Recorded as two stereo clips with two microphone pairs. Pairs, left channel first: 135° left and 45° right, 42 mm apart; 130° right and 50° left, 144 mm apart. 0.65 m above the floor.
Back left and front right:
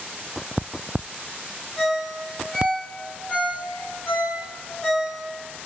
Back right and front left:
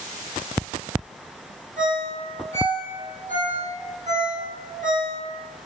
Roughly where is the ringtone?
Left.